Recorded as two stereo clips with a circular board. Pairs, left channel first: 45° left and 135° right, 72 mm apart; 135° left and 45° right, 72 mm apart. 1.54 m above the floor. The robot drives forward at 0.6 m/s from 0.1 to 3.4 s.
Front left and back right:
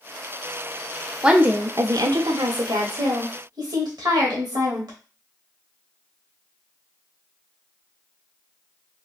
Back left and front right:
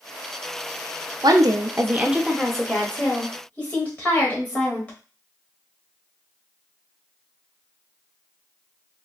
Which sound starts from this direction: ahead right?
A woman speaking, at 1.2 s.